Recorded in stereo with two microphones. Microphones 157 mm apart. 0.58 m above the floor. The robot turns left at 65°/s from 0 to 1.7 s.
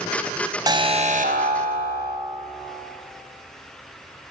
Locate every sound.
0.7 s an alarm: 25° right, 3 m; by 2.2 s 95° right, 3 m